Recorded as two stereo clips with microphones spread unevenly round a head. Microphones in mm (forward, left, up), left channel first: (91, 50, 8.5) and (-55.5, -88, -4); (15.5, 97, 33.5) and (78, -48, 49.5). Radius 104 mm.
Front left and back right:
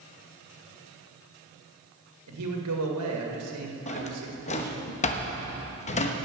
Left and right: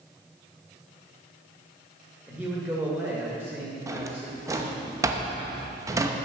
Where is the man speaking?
145° right, 2 m.